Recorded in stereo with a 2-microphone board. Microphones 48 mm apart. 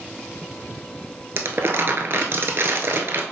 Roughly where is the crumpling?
Right.